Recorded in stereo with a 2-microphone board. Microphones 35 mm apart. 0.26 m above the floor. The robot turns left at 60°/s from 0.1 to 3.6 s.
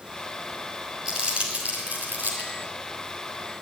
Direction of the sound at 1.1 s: 25° right (ahead or behind).